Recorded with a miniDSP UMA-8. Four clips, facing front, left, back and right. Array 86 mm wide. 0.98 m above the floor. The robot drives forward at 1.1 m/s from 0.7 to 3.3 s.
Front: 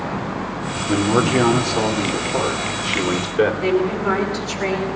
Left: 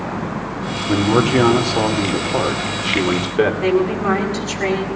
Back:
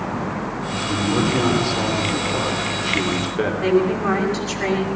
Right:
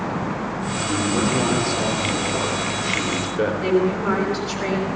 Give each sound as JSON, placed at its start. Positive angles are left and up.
{"t": 0.9, "sound": "a man speaking", "azimuth_deg": 60, "distance_m": 4.0}
{"t": 3.6, "sound": "a woman speaking", "azimuth_deg": 125, "distance_m": 8.0}